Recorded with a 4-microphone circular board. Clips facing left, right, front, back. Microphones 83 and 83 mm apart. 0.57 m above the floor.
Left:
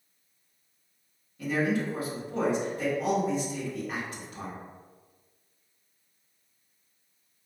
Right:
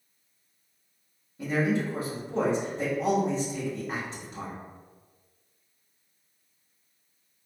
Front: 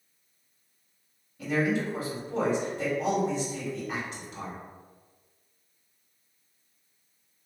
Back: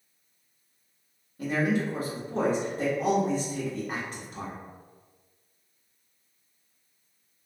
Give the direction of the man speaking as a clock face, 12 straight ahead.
5 o'clock.